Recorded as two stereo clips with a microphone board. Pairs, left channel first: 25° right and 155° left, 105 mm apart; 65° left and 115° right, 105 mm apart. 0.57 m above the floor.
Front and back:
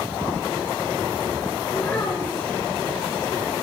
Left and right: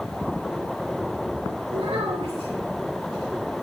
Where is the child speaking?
95° right, 6 m.